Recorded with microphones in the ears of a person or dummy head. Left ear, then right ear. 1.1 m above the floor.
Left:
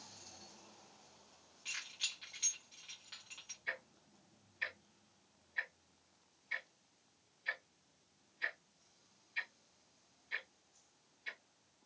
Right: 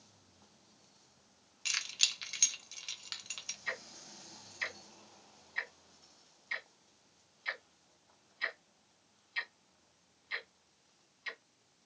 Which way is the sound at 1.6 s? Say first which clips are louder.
Right 9 dB; 75° right (ahead or behind).